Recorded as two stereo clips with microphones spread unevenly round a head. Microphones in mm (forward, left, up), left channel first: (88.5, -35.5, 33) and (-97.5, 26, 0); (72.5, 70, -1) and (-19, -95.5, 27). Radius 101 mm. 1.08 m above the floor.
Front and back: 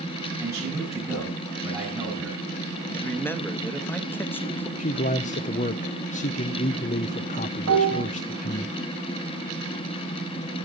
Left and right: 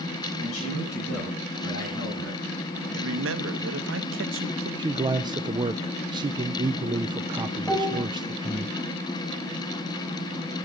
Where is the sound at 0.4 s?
80° left, 7 m.